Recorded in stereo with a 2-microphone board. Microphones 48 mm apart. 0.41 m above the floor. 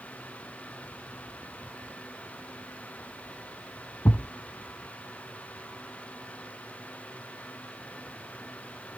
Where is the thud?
80° left, 0.8 m.